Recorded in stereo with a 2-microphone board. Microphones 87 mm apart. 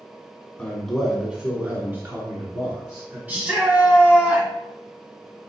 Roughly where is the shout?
Centre.